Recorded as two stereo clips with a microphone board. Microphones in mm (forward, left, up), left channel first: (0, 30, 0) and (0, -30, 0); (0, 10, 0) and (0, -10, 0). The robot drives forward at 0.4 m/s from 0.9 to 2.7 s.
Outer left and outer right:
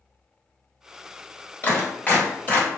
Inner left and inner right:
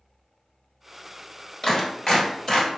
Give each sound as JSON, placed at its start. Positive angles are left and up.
{"t": 1.6, "sound": "a clap", "side_deg": 30, "distance_m": 1.4}